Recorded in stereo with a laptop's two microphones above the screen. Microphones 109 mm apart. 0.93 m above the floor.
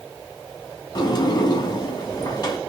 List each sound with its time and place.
0.9 s a sliding door: 45° left (ahead or behind), 1.2 m